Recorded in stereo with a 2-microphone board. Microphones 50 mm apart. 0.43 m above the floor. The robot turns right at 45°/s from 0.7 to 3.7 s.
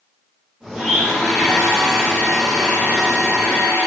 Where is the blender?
10° right (ahead or behind), 1.4 m; by 3.9 s 25° left (ahead or behind), 1.4 m.